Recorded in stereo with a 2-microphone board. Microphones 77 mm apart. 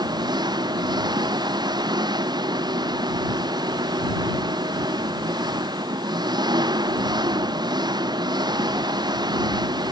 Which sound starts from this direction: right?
An engine running, at 0.0 s.